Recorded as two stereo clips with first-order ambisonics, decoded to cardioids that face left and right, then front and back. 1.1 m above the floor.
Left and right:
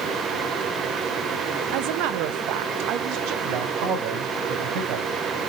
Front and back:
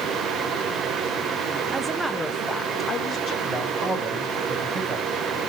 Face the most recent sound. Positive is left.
turn(degrees=-105)